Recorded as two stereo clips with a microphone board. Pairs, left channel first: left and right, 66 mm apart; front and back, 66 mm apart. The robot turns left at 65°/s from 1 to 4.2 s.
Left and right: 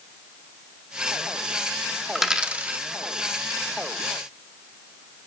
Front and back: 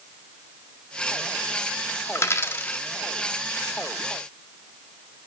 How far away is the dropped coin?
About 0.7 m.